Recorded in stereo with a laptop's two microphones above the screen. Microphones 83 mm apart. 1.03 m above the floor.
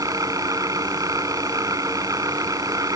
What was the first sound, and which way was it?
A machine running, 45° right (ahead or behind).